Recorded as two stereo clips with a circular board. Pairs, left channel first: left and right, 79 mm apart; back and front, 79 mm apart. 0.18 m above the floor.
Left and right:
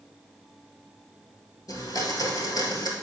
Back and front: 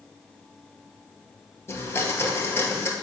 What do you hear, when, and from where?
1.7 s a blender: 125° left, 1.1 m